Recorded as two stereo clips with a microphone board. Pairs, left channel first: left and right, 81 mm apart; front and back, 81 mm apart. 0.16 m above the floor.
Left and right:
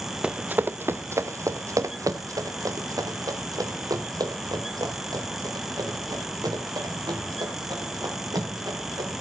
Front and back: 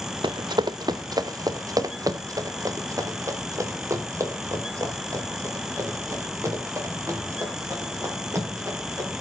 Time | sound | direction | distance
0.2 | running footsteps | 165° right | 0.5 m